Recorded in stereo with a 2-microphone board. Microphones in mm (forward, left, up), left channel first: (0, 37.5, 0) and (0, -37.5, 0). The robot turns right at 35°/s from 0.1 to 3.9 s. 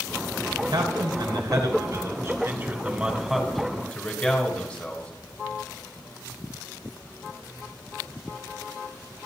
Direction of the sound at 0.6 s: 110° right.